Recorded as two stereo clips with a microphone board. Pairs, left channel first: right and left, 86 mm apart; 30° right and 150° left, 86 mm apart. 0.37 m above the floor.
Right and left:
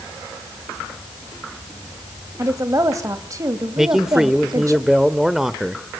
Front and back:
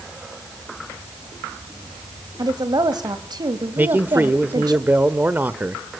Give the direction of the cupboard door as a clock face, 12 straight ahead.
No cupboard door in this recording.